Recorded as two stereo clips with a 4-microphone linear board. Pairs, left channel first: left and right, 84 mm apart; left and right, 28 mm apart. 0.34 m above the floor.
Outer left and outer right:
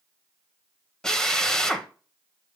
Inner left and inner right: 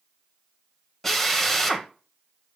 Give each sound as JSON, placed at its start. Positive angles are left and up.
{"t": 1.0, "sound": "a drill", "side_deg": 5, "distance_m": 0.8}